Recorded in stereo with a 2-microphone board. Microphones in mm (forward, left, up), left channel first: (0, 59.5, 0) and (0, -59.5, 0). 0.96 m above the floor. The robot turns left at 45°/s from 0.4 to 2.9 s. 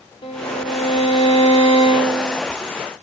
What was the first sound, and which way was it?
A violin, 130° left.